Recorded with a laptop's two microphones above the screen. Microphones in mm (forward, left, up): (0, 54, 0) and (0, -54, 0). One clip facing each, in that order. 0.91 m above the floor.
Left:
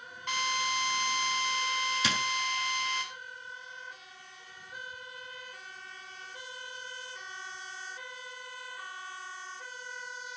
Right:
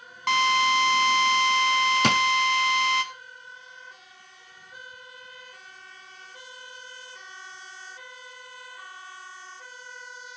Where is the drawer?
60° right (ahead or behind), 0.8 m.